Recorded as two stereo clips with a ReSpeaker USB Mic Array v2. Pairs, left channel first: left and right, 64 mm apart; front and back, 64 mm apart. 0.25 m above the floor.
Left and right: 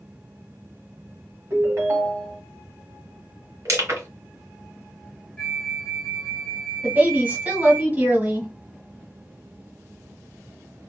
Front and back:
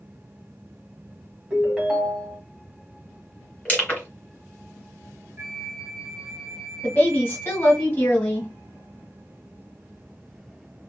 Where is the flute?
160° left, 1.1 m.